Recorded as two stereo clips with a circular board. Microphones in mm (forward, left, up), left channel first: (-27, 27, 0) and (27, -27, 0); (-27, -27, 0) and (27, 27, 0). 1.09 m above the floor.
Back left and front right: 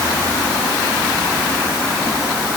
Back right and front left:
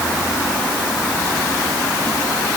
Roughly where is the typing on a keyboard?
No typing on a keyboard in this recording.